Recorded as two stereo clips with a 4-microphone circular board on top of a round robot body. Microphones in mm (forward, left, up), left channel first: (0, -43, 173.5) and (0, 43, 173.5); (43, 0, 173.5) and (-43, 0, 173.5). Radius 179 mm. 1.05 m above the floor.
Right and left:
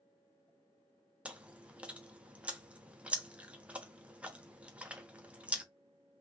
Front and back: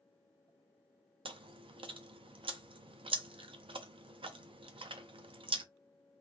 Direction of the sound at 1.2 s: 165° left.